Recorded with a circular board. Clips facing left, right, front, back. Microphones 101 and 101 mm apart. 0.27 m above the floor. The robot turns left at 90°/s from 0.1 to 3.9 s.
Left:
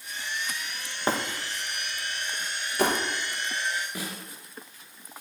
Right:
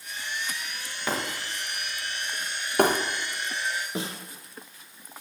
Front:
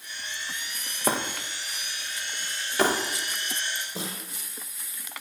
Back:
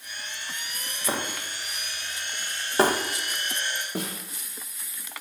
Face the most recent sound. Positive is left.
turn(degrees=-155)